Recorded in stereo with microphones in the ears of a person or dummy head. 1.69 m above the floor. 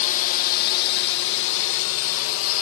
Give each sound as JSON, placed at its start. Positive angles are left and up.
{"t": 0.0, "sound": "a drone", "side_deg": 40}